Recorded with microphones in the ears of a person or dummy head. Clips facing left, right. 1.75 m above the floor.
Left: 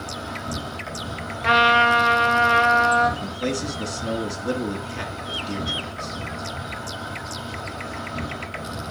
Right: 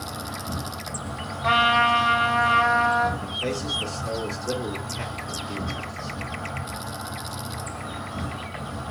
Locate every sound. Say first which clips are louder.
0.0 s an insect: left 2 dB; 35° left (ahead or behind), 6 m
1.4 s a trumpet: left 3 dB; 30° left (ahead or behind), 3 m
3.2 s a man speaking: left 3 dB; 80° left, 2.5 m